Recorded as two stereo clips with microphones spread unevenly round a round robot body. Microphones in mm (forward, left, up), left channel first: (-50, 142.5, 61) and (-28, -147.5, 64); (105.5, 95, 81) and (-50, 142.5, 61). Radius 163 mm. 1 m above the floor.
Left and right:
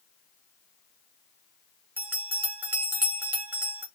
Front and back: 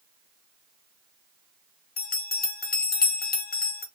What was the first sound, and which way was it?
A bell, 5° right.